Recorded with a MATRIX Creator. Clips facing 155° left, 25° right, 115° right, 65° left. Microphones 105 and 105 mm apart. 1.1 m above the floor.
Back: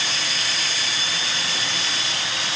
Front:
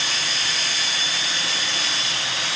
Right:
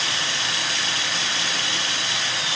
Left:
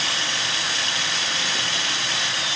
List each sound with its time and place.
Only background noise.